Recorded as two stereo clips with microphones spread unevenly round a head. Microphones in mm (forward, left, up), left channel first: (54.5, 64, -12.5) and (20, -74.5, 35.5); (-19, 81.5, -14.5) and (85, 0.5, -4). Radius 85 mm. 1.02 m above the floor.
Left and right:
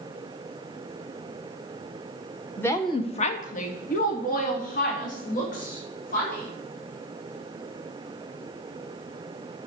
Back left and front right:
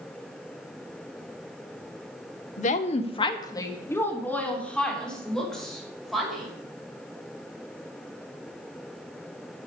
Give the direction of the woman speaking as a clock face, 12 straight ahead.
7 o'clock.